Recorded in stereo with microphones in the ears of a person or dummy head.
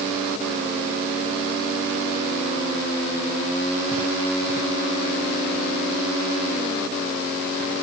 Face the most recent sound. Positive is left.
No sound to turn to.